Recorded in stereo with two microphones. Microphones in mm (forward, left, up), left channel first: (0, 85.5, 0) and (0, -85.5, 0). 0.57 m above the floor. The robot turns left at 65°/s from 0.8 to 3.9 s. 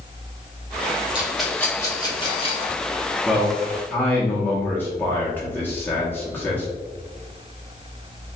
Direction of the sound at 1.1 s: 10° right (ahead or behind).